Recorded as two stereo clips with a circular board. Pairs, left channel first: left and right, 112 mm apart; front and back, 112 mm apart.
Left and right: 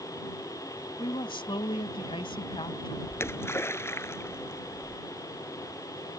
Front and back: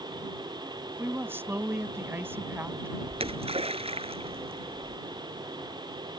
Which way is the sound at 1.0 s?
115° left.